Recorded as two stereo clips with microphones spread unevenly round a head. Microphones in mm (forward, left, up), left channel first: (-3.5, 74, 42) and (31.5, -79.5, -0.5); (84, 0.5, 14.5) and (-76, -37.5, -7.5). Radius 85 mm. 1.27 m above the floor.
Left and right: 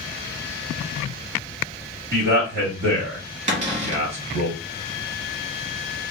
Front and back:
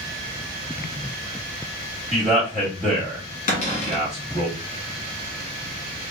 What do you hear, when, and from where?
2.1 s a man speaking: 80° right, 2.5 m
3.5 s a cupboard door: 35° right, 1.3 m